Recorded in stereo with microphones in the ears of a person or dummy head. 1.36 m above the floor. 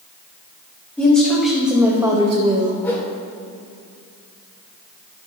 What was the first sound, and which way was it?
A woman speaking, 15° left (ahead or behind).